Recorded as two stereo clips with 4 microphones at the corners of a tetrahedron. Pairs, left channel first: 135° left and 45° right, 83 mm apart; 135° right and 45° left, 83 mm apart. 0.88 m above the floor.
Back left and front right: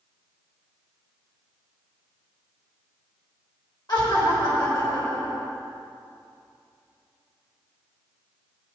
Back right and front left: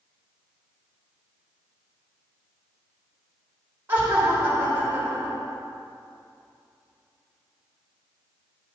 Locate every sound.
3.9 s laughter: 110° left, 3.5 m